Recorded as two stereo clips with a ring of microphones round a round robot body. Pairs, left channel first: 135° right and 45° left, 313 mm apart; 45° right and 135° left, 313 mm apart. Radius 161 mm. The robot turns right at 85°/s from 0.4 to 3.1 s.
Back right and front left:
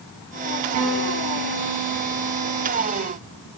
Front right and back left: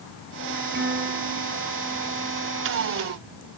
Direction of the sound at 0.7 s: 75° left.